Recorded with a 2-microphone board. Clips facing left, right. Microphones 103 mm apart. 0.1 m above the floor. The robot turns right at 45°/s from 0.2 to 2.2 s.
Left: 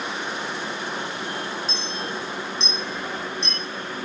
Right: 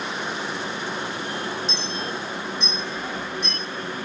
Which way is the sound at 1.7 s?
45° left (ahead or behind).